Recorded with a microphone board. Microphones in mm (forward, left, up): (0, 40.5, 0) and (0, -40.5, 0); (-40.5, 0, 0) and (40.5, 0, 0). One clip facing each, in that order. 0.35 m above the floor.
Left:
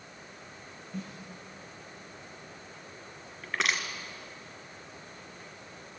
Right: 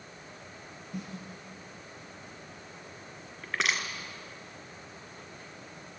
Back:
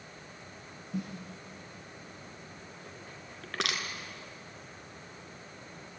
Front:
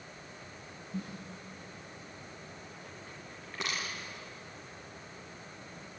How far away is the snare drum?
About 6 m.